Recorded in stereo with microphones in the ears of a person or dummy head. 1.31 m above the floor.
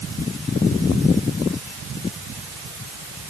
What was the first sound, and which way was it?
Only background noise.